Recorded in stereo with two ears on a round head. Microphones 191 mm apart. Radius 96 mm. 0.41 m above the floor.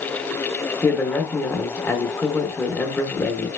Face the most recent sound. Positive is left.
turn(degrees=10)  # may be behind; listen again after turning